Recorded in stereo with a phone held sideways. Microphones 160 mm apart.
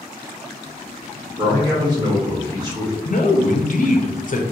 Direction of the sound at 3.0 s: 55° left (ahead or behind).